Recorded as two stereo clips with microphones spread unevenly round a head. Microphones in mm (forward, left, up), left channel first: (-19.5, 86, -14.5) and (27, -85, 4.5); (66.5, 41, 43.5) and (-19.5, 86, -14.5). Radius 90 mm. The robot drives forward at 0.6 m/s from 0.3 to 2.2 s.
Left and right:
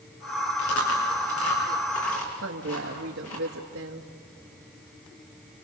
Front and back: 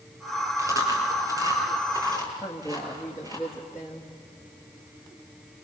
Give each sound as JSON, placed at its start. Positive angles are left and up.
{"t": 0.6, "sound": "chewing", "azimuth_deg": 90, "distance_m": 7.0}
{"t": 2.4, "sound": "a woman speaking", "azimuth_deg": -100, "distance_m": 1.7}